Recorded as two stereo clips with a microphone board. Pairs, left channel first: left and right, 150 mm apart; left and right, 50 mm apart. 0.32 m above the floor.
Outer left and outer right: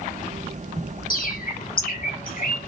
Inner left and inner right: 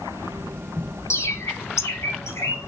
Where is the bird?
80° left, 0.8 m.